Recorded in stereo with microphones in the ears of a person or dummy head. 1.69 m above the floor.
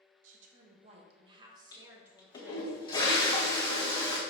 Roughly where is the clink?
I don't hear a clink.